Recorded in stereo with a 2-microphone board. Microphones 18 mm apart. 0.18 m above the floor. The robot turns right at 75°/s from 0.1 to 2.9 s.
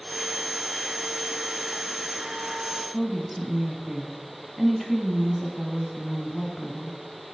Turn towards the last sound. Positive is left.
turn(degrees=5)  # may be behind; listen again after turning